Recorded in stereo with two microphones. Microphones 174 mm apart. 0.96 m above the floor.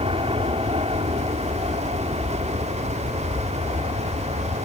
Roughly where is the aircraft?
Right.